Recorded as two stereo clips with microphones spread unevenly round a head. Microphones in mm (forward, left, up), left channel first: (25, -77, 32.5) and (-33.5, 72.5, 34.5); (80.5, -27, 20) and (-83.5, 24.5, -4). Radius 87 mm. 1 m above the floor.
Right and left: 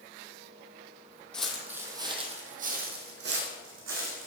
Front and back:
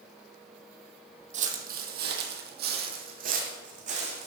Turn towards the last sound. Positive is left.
turn(degrees=110)